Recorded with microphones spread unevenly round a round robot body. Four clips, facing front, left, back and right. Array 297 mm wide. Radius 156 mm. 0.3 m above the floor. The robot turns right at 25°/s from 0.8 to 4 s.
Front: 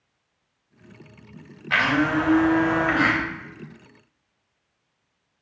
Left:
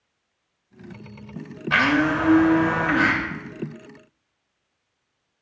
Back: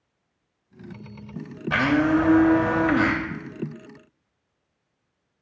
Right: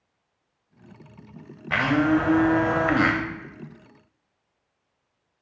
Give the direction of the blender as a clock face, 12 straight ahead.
6 o'clock.